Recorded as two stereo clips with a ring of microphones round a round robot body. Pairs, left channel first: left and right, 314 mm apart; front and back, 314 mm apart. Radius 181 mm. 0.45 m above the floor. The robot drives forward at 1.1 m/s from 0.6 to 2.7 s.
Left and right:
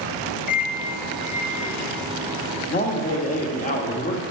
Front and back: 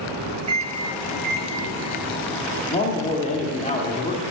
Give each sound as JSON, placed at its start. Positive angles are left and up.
{"t": 0.5, "sound": "a microwave", "azimuth_deg": 125, "distance_m": 0.7}
{"t": 2.7, "sound": "a man speaking", "azimuth_deg": 50, "distance_m": 1.0}